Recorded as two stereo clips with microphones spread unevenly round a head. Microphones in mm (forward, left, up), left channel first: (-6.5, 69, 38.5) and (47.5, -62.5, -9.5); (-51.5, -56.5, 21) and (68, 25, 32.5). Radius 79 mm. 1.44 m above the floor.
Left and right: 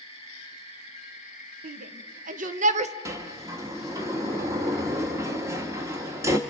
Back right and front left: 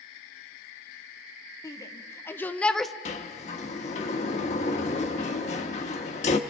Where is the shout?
80° right, 1.3 m; by 2.9 s 55° right, 0.7 m.